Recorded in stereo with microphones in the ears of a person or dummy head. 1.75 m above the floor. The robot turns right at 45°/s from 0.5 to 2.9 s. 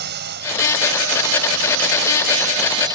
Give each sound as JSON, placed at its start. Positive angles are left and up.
{"t": 0.0, "sound": "a drone", "side_deg": -55}